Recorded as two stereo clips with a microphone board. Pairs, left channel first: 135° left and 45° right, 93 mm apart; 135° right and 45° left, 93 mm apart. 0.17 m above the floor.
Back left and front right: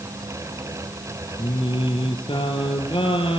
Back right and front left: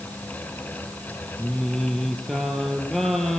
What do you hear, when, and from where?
1.4 s singing: 135° left, 3.5 m